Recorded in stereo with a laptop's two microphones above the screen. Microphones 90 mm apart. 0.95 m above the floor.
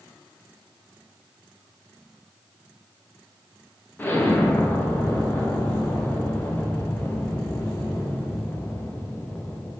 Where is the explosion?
20° left (ahead or behind), 0.5 m.